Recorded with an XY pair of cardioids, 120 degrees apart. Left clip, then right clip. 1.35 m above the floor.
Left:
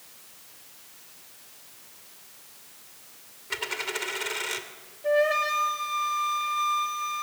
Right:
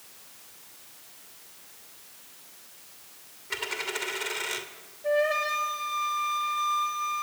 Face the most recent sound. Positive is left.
turn(degrees=10)